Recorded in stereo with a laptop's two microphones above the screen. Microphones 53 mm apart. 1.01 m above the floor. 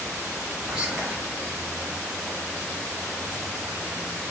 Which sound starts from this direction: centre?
Whispering, at 0.7 s.